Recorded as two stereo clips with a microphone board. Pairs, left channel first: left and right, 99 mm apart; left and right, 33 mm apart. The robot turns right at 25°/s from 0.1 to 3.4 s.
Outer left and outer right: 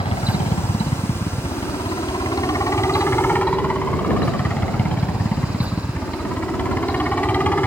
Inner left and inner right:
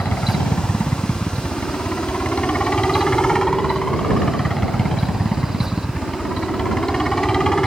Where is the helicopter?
80° left; by 7.7 s 160° left.